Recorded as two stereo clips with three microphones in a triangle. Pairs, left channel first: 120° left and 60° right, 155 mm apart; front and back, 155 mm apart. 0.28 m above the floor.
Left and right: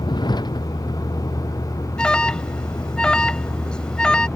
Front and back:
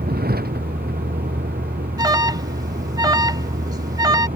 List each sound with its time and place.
0.0 s a vehicle: straight behind; by 4.4 s 160° right
2.0 s an alarm: 165° right